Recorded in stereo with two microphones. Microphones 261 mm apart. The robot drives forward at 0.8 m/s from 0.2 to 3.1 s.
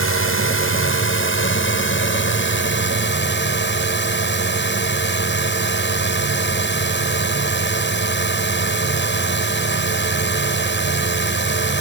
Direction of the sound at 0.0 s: 55° left (ahead or behind).